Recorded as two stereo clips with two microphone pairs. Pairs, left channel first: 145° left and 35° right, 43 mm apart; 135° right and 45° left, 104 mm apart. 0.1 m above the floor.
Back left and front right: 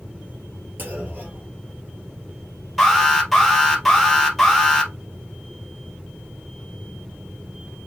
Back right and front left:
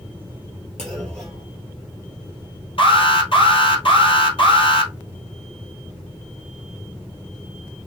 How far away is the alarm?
About 2 m.